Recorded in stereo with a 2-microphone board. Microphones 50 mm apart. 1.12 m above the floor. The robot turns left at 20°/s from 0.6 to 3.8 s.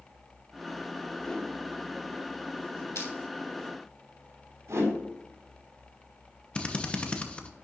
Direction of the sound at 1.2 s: 15° left (ahead or behind).